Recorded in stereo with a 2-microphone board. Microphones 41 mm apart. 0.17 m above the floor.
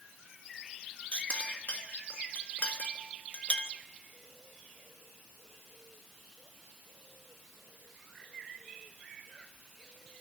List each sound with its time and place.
1.1 s a clink: 40° left (ahead or behind), 1.6 m